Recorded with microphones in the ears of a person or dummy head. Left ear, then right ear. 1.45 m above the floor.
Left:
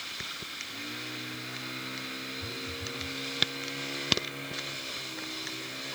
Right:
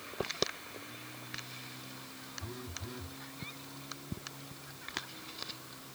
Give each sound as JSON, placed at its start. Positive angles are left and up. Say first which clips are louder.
{"t": 2.4, "sound": "a phone buzzing", "louder": "left 9 dB", "side_deg": -55}